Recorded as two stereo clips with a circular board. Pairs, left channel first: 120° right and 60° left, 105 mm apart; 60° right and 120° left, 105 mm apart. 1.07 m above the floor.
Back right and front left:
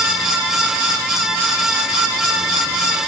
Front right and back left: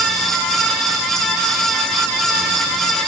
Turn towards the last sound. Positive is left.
No sound to turn to.